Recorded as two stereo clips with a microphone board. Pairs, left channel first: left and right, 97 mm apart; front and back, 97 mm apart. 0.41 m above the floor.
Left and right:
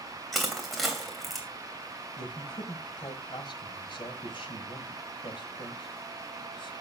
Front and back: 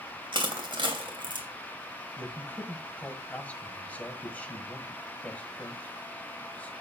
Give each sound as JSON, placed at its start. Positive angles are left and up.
{"t": 0.3, "sound": "crushing", "azimuth_deg": 180, "distance_m": 2.5}
{"t": 2.2, "sound": "a man speaking", "azimuth_deg": 70, "distance_m": 1.8}